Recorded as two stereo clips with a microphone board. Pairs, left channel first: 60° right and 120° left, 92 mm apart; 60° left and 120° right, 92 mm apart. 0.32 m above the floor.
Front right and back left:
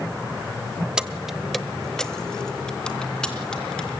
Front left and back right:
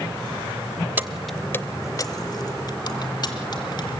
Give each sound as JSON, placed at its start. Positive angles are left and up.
{"t": 1.0, "sound": "keys jangling", "azimuth_deg": -165, "distance_m": 0.7}